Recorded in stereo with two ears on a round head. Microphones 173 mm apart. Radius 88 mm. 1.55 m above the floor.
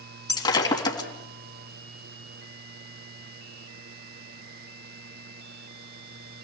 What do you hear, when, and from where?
0.3 s breaking glass: 25° left (ahead or behind), 3.5 m